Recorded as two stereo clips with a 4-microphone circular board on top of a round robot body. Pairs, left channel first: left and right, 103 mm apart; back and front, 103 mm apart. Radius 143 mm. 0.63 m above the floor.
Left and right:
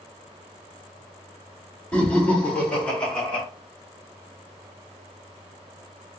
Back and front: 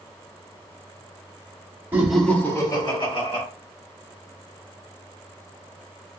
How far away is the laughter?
About 1.2 m.